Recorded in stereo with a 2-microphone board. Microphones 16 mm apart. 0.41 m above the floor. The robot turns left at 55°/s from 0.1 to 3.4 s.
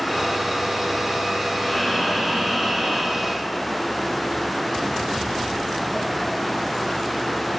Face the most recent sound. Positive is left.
turn(degrees=-95)